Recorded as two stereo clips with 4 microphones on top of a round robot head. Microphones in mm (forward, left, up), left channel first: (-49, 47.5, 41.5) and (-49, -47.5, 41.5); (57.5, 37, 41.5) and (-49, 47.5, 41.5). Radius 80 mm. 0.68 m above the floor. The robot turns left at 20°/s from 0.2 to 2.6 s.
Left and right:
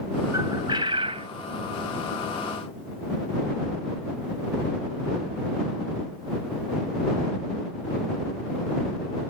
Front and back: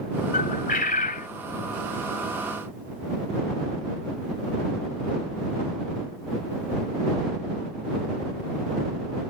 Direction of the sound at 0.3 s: 20° right.